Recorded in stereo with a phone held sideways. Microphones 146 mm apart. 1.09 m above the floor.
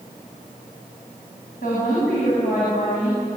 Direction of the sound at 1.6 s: 70° left (ahead or behind).